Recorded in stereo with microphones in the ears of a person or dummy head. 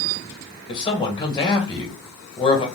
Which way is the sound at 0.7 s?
20° left (ahead or behind).